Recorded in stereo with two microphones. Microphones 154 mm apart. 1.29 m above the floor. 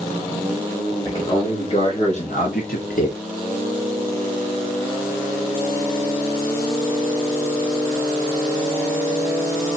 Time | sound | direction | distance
1.1 | a man speaking | 30° left (ahead or behind) | 2.5 m